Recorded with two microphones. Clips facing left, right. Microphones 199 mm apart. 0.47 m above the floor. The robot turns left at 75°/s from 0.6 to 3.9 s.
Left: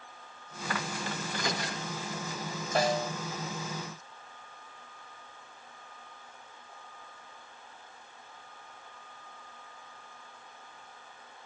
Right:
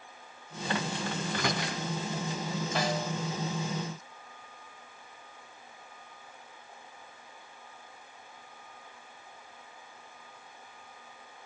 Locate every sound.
1.2 s a microwave: 55° right (ahead or behind), 4 m; by 1.8 s 70° right (ahead or behind), 4 m
2.8 s a snare drum: 45° left (ahead or behind), 2.5 m; by 3.1 s 20° left (ahead or behind), 2.5 m